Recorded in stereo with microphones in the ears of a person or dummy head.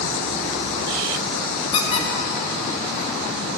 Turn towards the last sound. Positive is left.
turn(degrees=30)  # may be behind; listen again after turning